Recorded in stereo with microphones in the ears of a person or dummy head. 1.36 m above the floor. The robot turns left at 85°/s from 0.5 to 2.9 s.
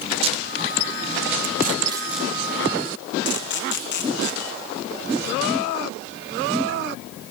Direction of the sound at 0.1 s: 30° right (ahead or behind).